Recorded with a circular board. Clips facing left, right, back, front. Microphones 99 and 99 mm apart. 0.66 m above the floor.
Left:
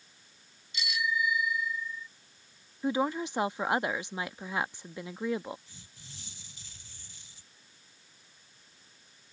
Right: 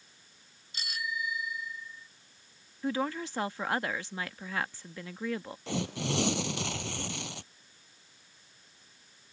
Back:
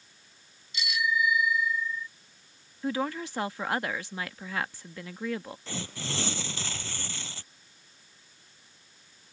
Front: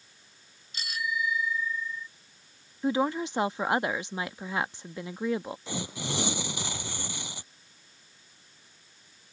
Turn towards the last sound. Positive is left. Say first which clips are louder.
# right 24 dB, front 3 dB
turn(degrees=-75)